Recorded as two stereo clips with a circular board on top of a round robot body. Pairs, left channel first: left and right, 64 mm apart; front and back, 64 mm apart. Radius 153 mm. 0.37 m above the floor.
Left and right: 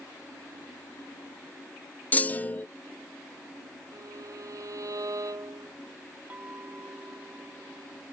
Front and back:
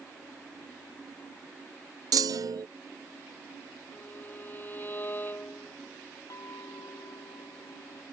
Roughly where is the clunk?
Behind left.